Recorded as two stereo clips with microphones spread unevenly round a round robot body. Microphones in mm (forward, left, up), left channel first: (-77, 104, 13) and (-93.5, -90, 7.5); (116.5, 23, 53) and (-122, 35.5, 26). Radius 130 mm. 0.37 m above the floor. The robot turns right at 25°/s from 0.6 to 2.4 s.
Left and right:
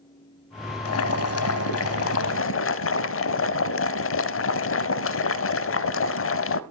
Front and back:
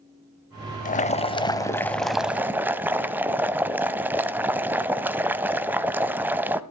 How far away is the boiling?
About 0.7 m.